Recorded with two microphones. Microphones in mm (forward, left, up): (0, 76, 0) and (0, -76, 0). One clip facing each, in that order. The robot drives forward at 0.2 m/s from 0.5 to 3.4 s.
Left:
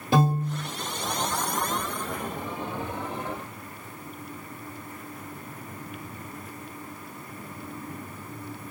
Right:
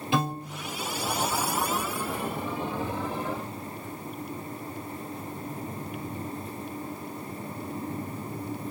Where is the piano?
40° left (ahead or behind), 1.6 m.